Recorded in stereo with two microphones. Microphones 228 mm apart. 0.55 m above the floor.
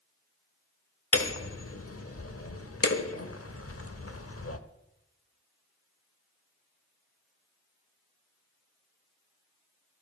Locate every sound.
1.1 s hammering: 85° left, 1.0 m